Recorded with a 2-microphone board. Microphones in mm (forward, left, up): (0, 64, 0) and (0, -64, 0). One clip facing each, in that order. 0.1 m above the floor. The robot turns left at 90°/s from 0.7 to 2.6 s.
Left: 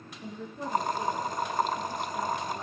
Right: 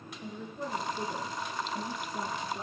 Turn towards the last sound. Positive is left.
turn(degrees=180)